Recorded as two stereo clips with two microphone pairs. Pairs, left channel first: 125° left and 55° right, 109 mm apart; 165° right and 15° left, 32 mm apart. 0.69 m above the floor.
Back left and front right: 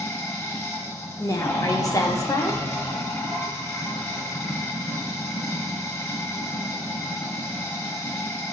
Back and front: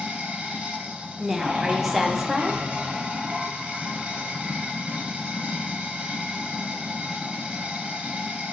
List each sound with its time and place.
0.0 s running water: 60° left, 0.9 m
1.2 s a woman speaking: 90° left, 0.5 m